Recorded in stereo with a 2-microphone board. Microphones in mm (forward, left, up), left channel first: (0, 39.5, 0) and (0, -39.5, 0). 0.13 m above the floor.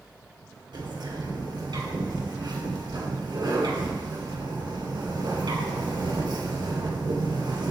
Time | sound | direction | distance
0.7 | a bird | 60° right (ahead or behind) | 2.5 m